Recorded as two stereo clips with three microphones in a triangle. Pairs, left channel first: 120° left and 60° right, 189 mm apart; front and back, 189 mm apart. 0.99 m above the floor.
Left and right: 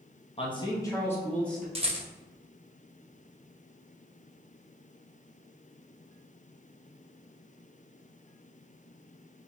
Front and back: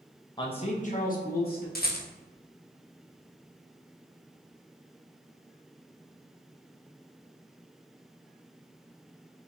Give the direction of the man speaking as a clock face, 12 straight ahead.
10 o'clock.